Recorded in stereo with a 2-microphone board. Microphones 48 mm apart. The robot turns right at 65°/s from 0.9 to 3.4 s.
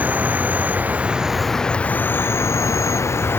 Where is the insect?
30° right; by 3.4 s 130° left.